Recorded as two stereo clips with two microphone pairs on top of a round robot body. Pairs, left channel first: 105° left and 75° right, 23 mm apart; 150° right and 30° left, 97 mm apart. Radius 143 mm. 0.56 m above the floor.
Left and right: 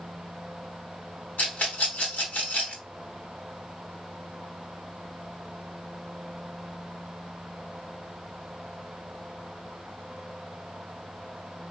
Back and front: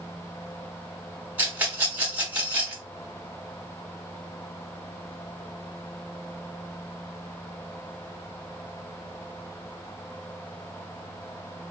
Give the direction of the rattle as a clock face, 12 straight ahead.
9 o'clock.